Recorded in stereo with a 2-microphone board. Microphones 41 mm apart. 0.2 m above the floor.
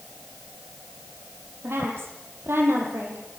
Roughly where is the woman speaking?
Right.